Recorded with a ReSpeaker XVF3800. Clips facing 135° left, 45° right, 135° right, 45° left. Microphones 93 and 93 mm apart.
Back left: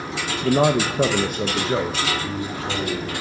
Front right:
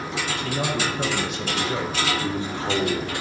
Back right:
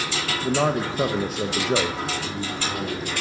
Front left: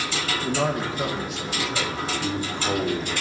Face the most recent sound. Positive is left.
turn(degrees=15)